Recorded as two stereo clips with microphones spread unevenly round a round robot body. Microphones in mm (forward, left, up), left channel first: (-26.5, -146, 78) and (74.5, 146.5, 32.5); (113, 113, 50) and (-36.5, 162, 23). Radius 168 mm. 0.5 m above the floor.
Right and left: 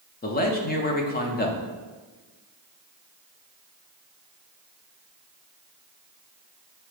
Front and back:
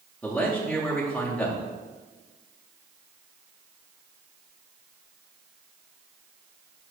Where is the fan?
I don't hear a fan.